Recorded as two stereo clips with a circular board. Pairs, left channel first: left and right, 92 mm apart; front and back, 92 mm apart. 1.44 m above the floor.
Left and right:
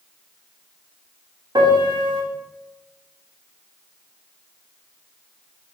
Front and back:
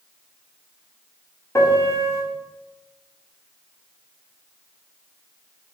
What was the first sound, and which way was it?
A piano, 55° right.